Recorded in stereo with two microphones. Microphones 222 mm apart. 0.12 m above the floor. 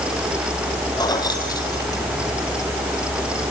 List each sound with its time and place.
1.0 s keys jangling: 15° left (ahead or behind), 2.5 m